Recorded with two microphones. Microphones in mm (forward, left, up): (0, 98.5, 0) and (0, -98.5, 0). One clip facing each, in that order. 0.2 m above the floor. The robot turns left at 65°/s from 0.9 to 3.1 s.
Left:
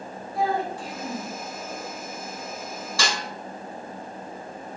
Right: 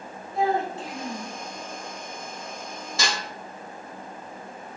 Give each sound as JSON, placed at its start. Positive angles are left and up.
{"t": 0.3, "sound": "a child speaking", "side_deg": -25, "distance_m": 1.1}
{"t": 3.0, "sound": "a snare drum", "side_deg": -20, "distance_m": 1.7}